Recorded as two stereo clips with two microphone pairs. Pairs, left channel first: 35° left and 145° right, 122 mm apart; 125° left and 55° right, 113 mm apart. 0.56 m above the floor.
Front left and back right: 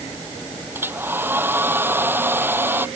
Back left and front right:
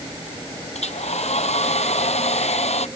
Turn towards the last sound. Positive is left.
turn(degrees=140)